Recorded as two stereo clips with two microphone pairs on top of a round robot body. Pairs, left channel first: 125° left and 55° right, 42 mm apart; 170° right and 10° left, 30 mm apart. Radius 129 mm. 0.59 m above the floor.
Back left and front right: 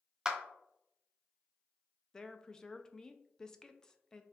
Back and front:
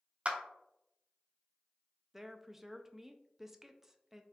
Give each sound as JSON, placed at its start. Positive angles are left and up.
{"t": 0.2, "sound": "a clap", "azimuth_deg": 15, "distance_m": 0.9}
{"t": 2.1, "sound": "a woman speaking", "azimuth_deg": 105, "distance_m": 0.5}